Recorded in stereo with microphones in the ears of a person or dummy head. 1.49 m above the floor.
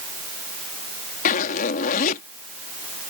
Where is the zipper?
50° left (ahead or behind).